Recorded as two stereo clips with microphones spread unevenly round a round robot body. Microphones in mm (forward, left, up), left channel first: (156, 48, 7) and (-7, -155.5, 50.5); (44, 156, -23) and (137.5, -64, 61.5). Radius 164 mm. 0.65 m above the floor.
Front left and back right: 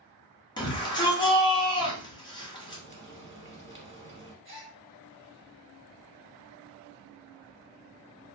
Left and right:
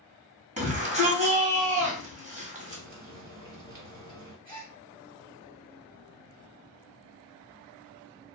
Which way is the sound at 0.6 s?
5° left.